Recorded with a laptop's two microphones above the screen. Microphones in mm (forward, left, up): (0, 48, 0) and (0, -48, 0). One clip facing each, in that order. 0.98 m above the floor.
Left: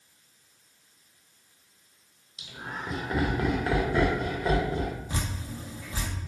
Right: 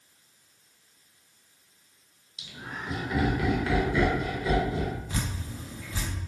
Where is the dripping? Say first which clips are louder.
Even; 25° left (ahead or behind), 0.8 m.